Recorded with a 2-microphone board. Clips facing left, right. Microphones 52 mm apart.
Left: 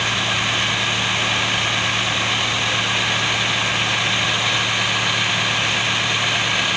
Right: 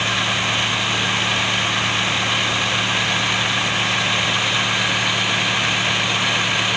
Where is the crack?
No crack in this recording.